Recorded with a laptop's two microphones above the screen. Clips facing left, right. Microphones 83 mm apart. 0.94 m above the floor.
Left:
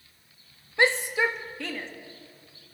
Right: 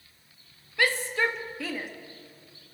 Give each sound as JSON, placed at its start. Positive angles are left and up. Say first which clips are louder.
{"t": 0.8, "sound": "a shout", "louder": "left 3 dB", "side_deg": 30, "distance_m": 1.5}